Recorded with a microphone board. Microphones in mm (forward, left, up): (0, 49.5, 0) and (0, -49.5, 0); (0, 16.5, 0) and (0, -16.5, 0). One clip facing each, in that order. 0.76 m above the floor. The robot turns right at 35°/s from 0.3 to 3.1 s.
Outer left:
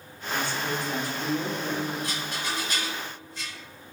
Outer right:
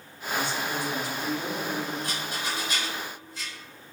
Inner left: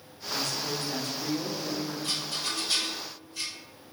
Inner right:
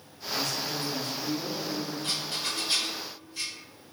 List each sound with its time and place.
0.3 s a woman speaking: 60° left, 0.7 m; by 1.9 s 115° left, 0.7 m
2.0 s a rattle: 45° right (ahead or behind), 2.0 m; by 3.5 s 10° right (ahead or behind), 2.0 m